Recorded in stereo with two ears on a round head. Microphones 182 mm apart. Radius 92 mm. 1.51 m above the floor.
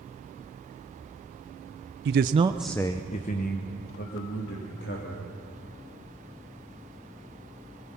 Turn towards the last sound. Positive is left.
turn(degrees=55)  # may be behind; listen again after turning